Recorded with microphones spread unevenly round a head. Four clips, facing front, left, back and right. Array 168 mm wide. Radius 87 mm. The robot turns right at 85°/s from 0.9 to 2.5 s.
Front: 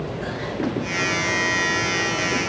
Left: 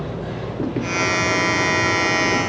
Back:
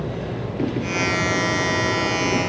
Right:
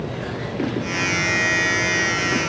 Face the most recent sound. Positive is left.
No sound to turn to.